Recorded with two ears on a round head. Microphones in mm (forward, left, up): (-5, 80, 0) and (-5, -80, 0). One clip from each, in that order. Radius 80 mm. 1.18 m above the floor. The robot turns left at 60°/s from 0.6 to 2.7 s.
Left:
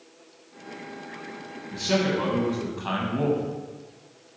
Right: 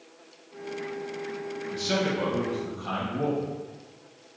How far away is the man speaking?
About 0.9 m.